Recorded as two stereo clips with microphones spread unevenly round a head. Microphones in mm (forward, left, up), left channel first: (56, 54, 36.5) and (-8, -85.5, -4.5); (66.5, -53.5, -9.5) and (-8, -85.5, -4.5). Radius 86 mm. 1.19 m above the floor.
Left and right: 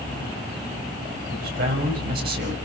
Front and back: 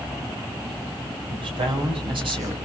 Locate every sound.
1.3 s a man speaking: 150° right, 6 m